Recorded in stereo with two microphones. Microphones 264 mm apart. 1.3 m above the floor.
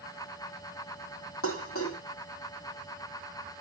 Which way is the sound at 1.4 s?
55° left (ahead or behind).